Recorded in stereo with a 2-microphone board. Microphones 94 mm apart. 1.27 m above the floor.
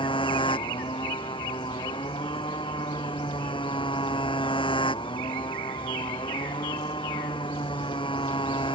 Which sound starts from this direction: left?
A motorcycle, at 0.0 s.